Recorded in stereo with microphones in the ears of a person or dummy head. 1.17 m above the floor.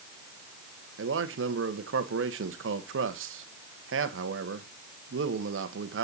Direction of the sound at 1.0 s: 65° right (ahead or behind).